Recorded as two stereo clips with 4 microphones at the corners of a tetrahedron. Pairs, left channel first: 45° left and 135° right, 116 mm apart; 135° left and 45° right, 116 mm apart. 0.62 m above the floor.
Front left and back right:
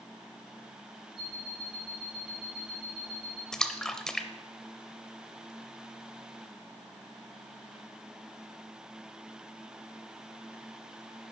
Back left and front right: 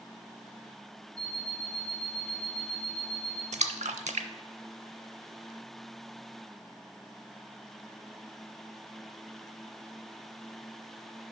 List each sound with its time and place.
1.2 s an alarm clock: 100° left, 4 m
3.5 s a splash: 40° right, 0.6 m